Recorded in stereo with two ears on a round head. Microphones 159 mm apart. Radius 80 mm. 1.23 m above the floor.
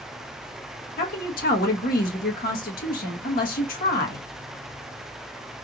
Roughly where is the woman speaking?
Left.